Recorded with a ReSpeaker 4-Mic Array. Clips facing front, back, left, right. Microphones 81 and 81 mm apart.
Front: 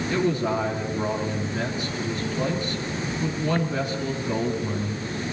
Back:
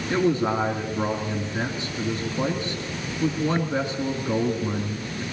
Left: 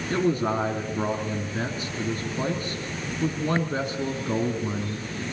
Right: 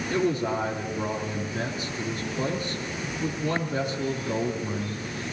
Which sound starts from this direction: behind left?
A man speaking, at 0.1 s.